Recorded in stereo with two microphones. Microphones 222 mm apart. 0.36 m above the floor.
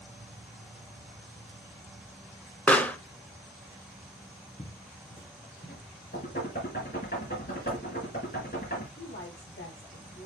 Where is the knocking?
45° left (ahead or behind), 5.5 m.